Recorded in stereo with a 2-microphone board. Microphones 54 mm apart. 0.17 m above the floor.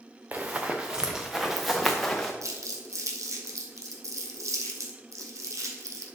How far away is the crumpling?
About 1.6 m.